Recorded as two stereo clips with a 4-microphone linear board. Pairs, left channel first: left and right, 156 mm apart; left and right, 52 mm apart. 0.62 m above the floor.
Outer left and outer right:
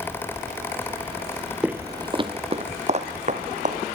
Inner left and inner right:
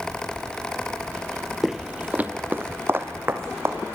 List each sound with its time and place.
1.6 s footsteps: 5° right (ahead or behind), 0.9 m; by 3.8 s 50° right (ahead or behind), 3 m